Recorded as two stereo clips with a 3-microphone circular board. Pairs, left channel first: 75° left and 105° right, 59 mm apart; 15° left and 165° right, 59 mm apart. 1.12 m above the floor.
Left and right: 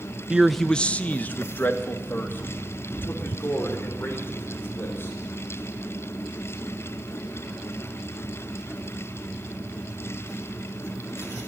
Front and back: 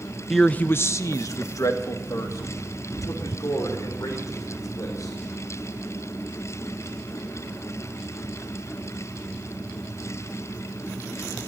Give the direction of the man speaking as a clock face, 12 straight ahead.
3 o'clock.